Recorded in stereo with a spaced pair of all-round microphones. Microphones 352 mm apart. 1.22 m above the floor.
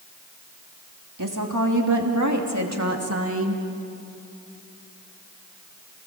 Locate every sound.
1.2 s a woman speaking: 65° right (ahead or behind), 3 m; by 3.6 s 35° right (ahead or behind), 2 m